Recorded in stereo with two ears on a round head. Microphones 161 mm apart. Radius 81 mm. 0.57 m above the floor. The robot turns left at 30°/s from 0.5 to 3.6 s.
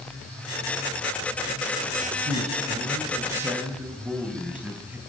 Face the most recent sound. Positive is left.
turn(degrees=-170)